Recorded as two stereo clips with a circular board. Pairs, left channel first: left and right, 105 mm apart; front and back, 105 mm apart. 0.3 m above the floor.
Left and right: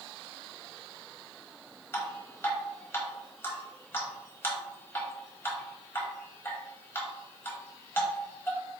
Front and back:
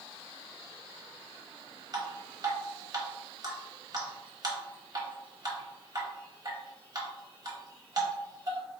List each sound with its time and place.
1.9 s dripping: 150° left, 1.1 m